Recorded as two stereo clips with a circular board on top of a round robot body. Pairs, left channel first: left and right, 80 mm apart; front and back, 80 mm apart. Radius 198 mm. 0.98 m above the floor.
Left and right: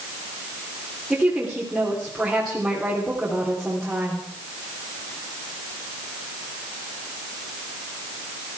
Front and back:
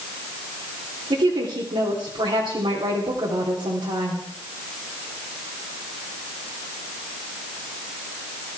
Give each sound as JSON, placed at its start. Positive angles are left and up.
{"t": 1.1, "sound": "a woman speaking", "azimuth_deg": -175, "distance_m": 3.5}